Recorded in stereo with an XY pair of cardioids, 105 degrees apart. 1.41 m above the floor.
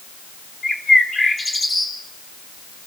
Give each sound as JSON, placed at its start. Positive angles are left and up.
{"t": 0.6, "sound": "a bird", "azimuth_deg": 20, "distance_m": 4.5}